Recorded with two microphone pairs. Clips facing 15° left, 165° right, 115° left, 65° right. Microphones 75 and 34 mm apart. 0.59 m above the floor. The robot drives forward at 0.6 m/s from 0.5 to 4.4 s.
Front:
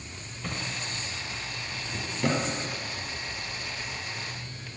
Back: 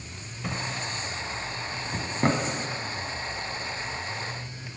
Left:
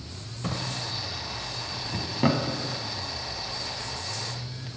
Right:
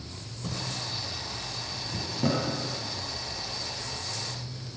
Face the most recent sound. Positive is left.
turn(degrees=165)